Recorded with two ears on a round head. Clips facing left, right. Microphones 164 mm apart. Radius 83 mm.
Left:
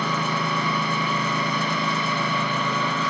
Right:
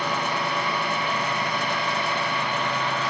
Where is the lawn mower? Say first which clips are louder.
Left 1 dB; 90° left.